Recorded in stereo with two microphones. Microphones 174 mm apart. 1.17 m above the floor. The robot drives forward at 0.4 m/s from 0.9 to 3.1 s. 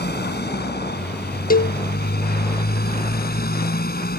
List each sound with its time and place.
0.0 s a motorcycle: 75° left (ahead or behind); by 4.2 s 65° left (ahead or behind)
1.5 s a cowbell: 55° left (ahead or behind); by 1.8 s 50° left (ahead or behind)